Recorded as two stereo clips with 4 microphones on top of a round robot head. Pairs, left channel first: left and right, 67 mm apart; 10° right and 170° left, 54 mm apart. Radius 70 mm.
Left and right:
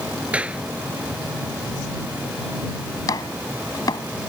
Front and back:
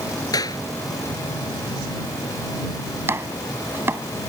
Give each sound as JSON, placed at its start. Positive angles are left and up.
{"t": 0.3, "sound": "a clap", "azimuth_deg": -15}
{"t": 3.1, "sound": "chopping", "azimuth_deg": 120}